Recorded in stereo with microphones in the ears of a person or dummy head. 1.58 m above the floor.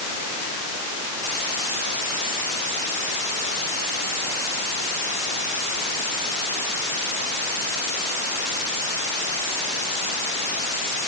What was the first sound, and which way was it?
Only background noise.